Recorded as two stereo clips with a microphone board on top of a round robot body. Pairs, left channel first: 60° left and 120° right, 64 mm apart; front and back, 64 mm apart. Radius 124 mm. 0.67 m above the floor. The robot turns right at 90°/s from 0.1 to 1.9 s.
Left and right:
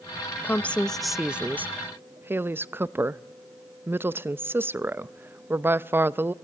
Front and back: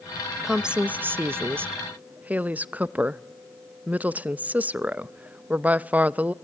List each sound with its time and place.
0.4 s a woman speaking: 95° left, 0.7 m; by 6.3 s 135° right, 0.7 m